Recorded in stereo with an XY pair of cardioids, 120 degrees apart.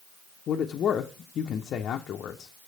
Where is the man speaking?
55° left, 0.5 m.